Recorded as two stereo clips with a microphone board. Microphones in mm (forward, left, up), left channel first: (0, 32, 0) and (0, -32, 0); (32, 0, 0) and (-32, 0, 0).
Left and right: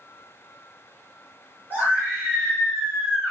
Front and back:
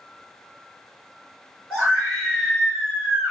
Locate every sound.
1.7 s a scream: 80° right, 1.9 m; by 3.3 s 140° right, 1.8 m